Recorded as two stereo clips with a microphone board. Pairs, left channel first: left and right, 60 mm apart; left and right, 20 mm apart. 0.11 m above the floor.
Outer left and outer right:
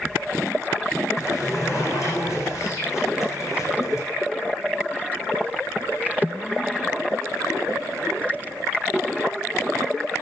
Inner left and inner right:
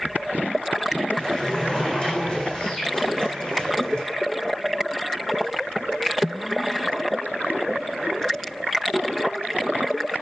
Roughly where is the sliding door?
Left.